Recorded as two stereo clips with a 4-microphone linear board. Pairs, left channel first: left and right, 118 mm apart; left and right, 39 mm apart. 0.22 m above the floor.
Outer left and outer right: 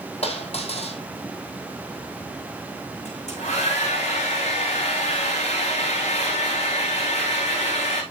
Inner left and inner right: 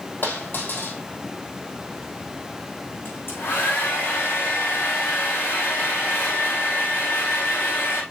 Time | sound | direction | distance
0.2 | a dropped coin | 60° left (ahead or behind) | 4 m
3.0 | a hair dryer | 70° left (ahead or behind) | 6.5 m